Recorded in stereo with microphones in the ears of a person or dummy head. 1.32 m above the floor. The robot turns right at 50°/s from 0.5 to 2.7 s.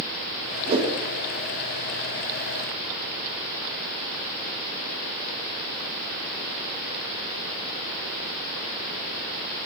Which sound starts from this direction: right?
A whoosh, at 0.7 s.